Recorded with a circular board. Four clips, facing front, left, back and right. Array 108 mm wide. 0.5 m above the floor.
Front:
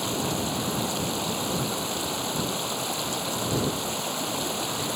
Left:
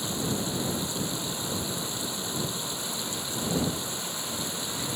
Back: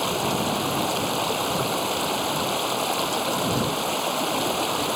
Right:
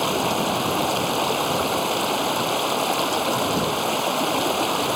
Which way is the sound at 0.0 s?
110° right.